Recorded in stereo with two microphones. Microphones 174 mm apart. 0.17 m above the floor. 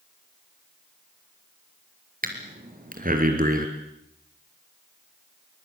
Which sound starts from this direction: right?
Breathing, at 2.2 s.